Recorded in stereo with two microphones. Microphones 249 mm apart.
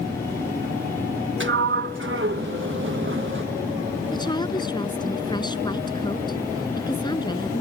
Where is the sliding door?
50° right (ahead or behind).